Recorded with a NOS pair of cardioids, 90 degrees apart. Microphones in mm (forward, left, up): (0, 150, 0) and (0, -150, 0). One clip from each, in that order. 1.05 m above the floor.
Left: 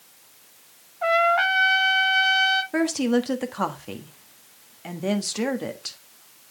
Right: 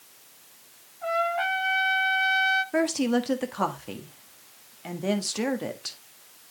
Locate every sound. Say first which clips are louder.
1.0 s a trumpet: left 7 dB; 70° left, 1.1 m
2.7 s a woman speaking: left 2 dB; 5° left, 1.4 m